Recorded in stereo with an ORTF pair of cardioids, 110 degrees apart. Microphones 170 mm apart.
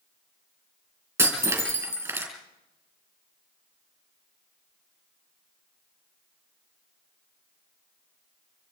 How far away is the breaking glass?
About 6.5 m.